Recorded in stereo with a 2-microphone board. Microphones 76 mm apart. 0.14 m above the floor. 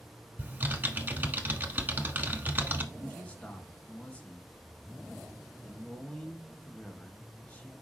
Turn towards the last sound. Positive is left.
turn(degrees=15)  # may be behind; listen again after turning